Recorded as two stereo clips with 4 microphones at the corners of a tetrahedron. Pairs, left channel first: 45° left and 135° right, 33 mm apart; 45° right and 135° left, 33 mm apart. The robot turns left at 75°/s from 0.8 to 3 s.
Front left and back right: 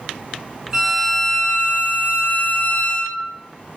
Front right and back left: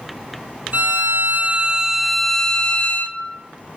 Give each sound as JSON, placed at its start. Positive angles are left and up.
{"t": 0.7, "sound": "a violin", "azimuth_deg": 155, "distance_m": 0.8}